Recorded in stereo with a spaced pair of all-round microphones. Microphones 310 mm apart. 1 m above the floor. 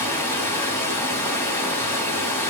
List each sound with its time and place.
0.0 s running water: 10° left (ahead or behind), 3 m